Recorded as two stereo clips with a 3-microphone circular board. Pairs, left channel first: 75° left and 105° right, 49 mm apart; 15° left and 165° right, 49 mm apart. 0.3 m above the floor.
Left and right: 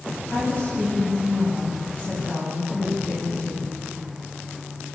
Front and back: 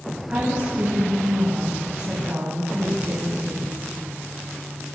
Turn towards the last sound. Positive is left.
turn(degrees=125)